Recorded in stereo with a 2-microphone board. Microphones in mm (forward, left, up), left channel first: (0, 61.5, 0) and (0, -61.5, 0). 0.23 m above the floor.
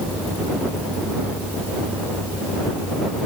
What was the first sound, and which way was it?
Only background noise.